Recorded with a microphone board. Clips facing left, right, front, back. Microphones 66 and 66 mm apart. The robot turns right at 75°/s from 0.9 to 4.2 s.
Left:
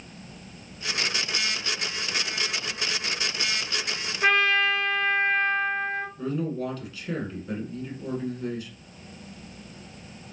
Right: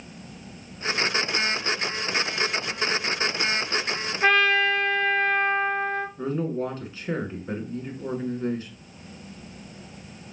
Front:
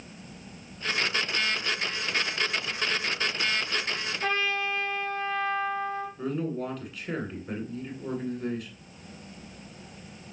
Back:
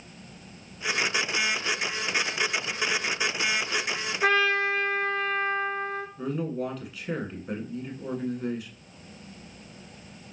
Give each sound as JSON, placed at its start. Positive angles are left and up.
{"t": 4.2, "sound": "a trumpet", "azimuth_deg": -175, "distance_m": 1.2}
{"t": 6.2, "sound": "a man speaking", "azimuth_deg": -95, "distance_m": 1.5}